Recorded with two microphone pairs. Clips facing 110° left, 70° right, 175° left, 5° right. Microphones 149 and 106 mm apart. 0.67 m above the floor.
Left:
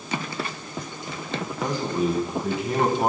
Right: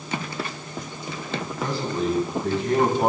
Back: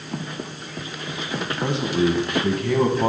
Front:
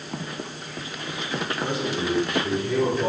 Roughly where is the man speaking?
Behind.